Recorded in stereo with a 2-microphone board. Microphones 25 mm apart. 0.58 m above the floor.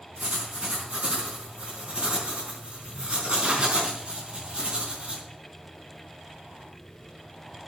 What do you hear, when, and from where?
0.2 s writing: 40° right (ahead or behind), 4 m